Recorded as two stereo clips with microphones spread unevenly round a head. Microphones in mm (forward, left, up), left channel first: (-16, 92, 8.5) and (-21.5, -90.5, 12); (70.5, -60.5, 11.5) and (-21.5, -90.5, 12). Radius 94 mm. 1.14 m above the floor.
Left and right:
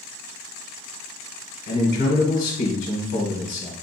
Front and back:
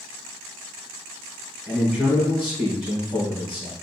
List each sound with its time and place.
1.7 s a man speaking: 105° left, 1.1 m